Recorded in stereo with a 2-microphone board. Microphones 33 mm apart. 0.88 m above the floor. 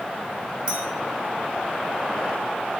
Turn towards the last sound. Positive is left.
turn(degrees=-35)  # may be behind; listen again after turning